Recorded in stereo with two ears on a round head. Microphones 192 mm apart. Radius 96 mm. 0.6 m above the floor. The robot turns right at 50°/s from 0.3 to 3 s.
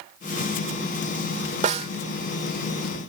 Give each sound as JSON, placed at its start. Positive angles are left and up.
{"t": 1.6, "sound": "a snare drum", "side_deg": -35}